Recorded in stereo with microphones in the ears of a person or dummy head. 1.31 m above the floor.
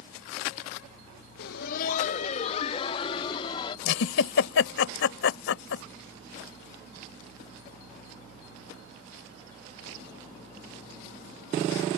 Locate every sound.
1.4 s laughter: 55° left (ahead or behind); by 3.8 s 25° left (ahead or behind)
3.9 s a giggle: 80° left